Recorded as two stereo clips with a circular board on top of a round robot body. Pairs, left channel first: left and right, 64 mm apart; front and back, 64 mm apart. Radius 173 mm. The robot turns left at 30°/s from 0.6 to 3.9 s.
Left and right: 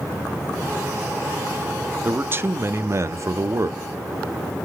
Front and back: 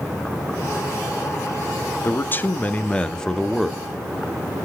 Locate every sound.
2.0 s a man speaking: 40° right, 1.0 m; by 3.8 s 90° right, 1.0 m